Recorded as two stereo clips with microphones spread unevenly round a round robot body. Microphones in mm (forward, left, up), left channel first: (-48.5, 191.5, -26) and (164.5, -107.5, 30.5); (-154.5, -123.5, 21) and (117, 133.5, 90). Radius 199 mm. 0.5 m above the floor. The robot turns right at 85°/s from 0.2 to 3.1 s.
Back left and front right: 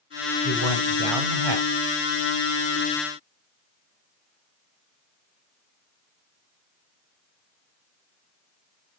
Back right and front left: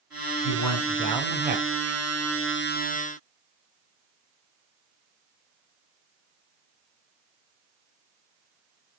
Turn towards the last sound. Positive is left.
turn(degrees=110)